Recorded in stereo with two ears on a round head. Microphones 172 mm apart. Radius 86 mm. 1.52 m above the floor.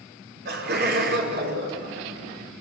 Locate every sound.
0.5 s laughter: 60° right (ahead or behind), 5 m